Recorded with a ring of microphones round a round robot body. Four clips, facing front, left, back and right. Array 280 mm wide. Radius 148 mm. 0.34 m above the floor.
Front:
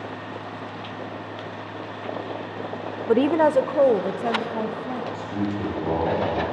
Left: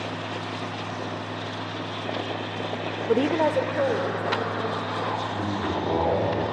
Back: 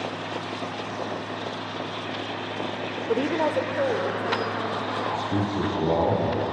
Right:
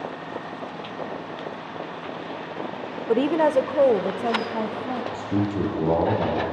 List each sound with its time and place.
3.1 s a woman speaking: 5° left, 0.9 m; by 5.0 s 55° right, 2.5 m
5.1 s a man speaking: 120° right, 9 m